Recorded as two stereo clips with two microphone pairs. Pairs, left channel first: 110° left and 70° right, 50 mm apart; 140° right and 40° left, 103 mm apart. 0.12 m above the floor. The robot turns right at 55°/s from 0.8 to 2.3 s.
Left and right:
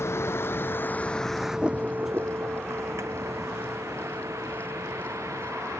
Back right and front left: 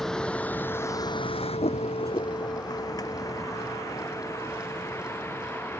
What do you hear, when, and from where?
0.0 s a vehicle: 135° left; by 5.8 s 70° right